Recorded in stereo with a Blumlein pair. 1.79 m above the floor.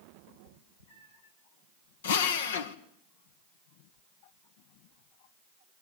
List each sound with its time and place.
0.3 s a cat meowing: 65° left, 4.5 m; by 1.3 s 80° left, 4 m
2.0 s a drill: 60° left, 1.8 m